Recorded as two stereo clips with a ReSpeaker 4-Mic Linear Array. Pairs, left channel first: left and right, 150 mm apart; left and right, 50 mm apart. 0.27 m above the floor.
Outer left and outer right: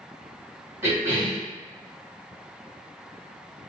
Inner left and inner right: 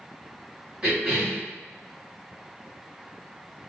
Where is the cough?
20° right (ahead or behind), 1.4 m.